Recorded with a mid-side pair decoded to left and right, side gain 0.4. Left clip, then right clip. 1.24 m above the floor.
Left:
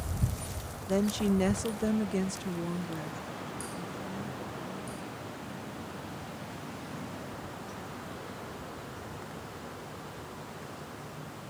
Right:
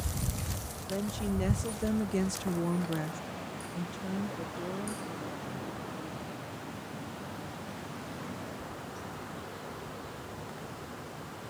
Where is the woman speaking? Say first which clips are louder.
Left 6 dB; 60° left; by 6.5 s 80° right.